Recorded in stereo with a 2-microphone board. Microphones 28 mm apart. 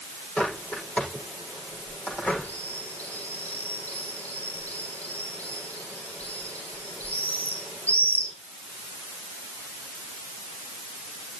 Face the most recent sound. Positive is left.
turn(degrees=70)  # may be behind; listen again after turning